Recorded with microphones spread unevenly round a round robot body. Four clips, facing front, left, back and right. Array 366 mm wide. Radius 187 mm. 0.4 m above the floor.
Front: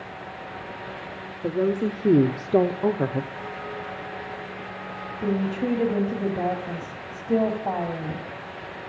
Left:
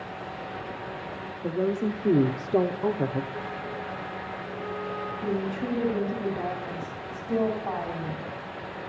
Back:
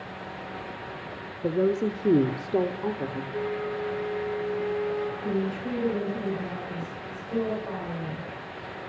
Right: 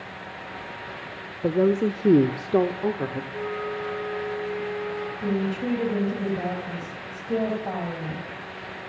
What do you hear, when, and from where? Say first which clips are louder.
1.4 s a woman speaking: right 6 dB, front 1 dB; 110° right, 1.1 m; by 3.2 s 10° left, 1.0 m
3.3 s a flute: right 4 dB, back 4 dB; 150° right, 9 m
5.2 s a woman speaking: right 3 dB, front 3 dB; 10° right, 2.5 m